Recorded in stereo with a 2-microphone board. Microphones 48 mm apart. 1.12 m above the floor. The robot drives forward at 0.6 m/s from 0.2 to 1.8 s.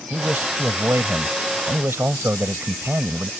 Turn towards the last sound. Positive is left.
turn(degrees=-55)  # may be behind; listen again after turning